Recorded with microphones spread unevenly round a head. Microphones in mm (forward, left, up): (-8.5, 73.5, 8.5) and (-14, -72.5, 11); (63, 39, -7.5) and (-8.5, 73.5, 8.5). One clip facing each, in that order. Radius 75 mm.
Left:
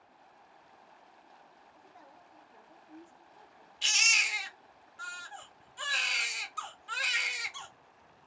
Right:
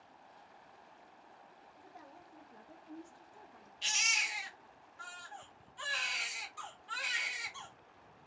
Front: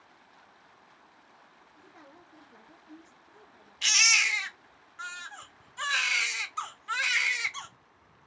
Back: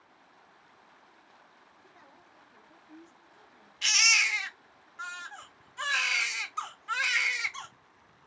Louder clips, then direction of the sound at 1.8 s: Right 2 dB, front 6 dB; 25° right.